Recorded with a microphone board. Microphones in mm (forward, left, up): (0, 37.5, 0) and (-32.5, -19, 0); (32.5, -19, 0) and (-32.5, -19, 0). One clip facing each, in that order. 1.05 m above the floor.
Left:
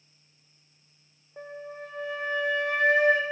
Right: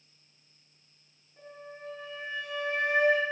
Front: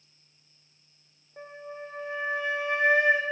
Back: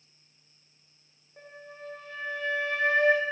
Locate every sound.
1.4 s a flute: 70° left, 1.4 m